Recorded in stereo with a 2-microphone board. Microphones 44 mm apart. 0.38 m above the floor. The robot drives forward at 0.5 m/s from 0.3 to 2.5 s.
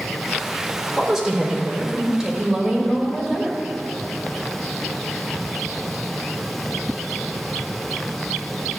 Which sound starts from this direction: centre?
A woman speaking, at 1.0 s.